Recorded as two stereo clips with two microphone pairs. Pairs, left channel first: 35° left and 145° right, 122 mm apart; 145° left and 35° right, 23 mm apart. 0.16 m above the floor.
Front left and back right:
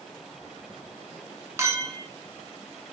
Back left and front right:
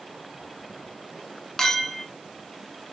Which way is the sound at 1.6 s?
175° right.